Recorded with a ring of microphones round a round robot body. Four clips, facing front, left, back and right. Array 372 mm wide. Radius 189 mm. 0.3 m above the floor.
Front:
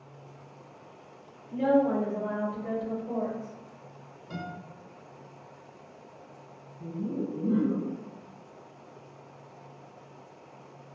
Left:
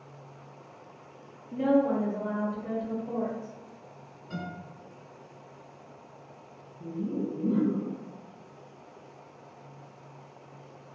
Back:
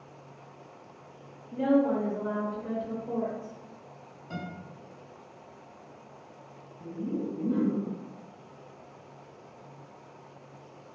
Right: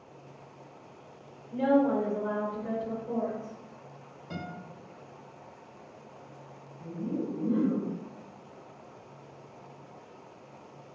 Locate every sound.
1.5 s a woman speaking: 90° right, 1.5 m; by 3.6 s 110° left, 1.5 m
4.3 s a guitar: 75° right, 1.5 m
6.8 s laughter: 40° left, 1.7 m